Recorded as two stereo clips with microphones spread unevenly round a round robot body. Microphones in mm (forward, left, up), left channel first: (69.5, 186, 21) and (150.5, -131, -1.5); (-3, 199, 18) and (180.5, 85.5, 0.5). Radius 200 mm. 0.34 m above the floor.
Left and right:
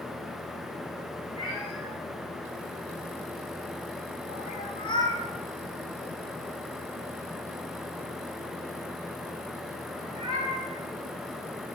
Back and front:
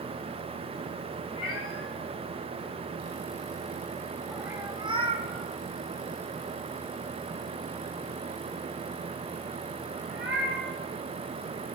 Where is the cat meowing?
160° left, 1.4 m; by 10.7 s straight ahead, 3.5 m.